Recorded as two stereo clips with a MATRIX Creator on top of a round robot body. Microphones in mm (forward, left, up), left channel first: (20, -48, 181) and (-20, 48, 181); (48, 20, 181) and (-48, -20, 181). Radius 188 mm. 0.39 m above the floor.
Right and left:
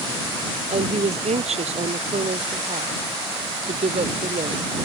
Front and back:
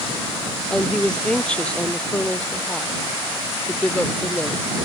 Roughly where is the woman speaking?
Left.